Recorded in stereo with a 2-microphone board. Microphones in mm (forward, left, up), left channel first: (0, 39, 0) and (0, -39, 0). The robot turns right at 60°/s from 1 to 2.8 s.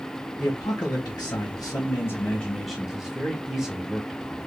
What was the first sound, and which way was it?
A man speaking, 75° left.